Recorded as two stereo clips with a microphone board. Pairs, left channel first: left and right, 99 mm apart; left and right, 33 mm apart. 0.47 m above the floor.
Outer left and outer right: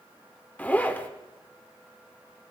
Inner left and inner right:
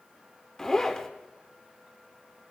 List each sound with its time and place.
0.6 s a zipper: 15° left (ahead or behind), 1.1 m